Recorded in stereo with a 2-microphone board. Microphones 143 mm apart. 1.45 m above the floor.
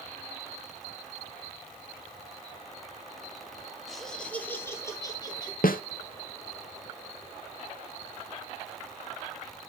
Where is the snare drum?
85° left, 0.8 m.